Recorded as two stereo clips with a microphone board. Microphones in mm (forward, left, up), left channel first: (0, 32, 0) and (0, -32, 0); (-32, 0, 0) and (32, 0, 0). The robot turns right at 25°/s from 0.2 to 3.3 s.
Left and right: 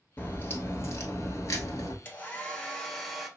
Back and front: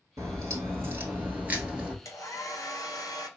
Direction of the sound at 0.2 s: 30° left.